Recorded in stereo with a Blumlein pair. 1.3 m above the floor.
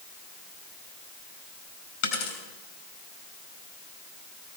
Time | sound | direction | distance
2.0 | a dropped coin | 50° left | 4.5 m